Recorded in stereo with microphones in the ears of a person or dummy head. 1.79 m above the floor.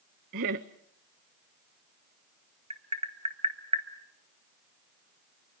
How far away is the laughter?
About 0.7 m.